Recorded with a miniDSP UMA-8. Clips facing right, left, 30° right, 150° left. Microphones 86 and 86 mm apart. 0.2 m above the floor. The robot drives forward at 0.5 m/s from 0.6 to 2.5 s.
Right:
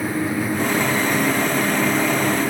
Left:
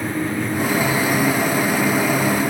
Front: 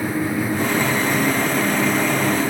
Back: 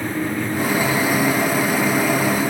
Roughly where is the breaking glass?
I don't hear breaking glass.